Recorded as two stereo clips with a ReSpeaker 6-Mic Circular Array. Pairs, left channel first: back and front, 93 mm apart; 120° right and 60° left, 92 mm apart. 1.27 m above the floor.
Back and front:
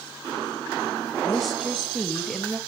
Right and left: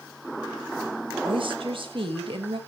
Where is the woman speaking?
90° left, 1.6 m.